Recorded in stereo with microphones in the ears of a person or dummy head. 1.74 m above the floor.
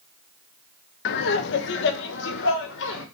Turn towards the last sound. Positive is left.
turn(degrees=70)  # may be behind; listen again after turning